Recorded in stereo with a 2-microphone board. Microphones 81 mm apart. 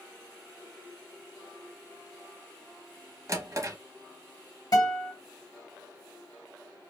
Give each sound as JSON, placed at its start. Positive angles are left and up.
{"t": 3.3, "sound": "a drawer", "side_deg": -40, "distance_m": 0.8}
{"t": 4.7, "sound": "a guitar", "side_deg": 55, "distance_m": 1.9}